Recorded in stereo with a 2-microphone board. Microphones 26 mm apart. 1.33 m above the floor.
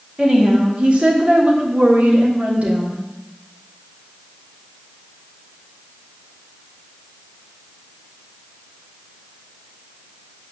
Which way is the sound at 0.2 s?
30° right (ahead or behind).